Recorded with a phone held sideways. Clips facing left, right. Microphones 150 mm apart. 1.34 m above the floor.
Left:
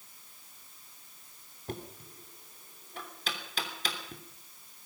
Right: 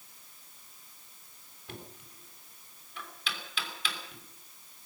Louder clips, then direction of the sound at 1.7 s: Left 6 dB; 40° left (ahead or behind).